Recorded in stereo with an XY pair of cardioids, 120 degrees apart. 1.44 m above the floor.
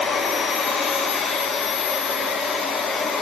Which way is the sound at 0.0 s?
50° left.